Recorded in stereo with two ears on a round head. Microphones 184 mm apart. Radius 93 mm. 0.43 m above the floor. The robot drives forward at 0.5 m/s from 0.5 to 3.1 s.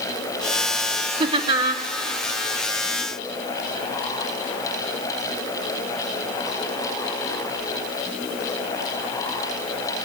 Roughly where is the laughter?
Right.